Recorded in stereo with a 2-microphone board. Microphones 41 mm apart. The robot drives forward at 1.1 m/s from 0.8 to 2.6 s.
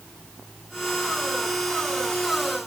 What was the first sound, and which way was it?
Only background noise.